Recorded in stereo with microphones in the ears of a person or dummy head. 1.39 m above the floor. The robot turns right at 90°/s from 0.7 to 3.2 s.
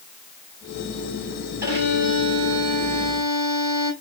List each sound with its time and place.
1.6 s a violin: 165° right, 2.5 m; by 3.9 s 25° right, 2.5 m